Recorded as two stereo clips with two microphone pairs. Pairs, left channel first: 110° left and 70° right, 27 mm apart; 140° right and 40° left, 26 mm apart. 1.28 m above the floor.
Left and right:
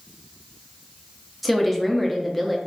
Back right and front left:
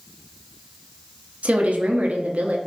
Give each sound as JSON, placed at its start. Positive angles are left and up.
{"t": 1.4, "sound": "a woman speaking", "azimuth_deg": 20, "distance_m": 0.7}